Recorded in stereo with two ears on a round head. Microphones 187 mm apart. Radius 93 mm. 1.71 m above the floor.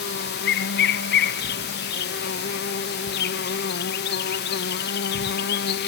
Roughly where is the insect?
Left.